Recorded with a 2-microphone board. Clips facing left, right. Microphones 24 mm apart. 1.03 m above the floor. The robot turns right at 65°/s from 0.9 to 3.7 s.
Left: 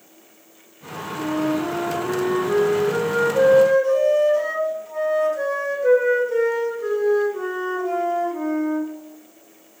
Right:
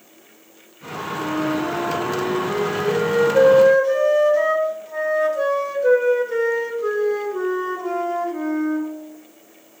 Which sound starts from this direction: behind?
A flute, at 1.2 s.